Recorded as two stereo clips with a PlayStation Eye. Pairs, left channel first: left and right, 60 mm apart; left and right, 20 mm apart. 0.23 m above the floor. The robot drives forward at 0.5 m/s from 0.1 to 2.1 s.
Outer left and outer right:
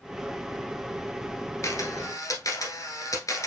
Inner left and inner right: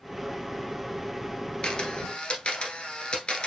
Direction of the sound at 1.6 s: 55° left (ahead or behind).